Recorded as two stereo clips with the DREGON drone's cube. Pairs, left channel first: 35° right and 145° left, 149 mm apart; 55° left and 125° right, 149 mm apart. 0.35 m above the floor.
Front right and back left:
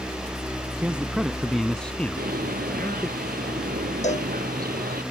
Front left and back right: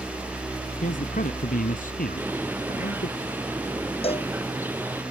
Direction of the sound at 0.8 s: 65° left.